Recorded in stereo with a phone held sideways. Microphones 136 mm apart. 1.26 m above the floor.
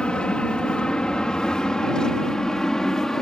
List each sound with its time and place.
0.0 s an aircraft: 5° left (ahead or behind)